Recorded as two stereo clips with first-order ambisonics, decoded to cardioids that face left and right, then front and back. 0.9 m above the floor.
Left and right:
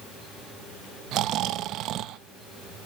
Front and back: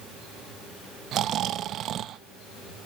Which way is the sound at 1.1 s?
130° right.